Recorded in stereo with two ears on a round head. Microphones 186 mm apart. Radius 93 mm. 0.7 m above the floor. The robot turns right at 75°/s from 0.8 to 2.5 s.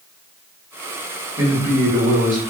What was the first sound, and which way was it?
A man speaking, 165° right.